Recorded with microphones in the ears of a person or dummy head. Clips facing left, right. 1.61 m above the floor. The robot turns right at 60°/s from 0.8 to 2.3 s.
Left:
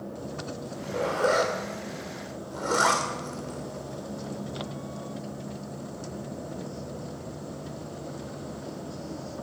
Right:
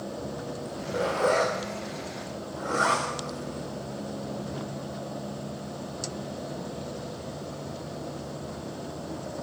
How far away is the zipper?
About 2.5 m.